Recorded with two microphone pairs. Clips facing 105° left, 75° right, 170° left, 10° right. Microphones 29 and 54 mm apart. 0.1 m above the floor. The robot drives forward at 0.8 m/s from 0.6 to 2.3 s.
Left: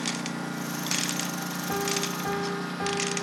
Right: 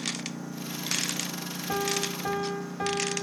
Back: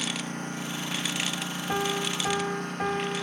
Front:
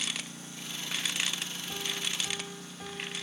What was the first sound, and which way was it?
A lawn mower, 130° left.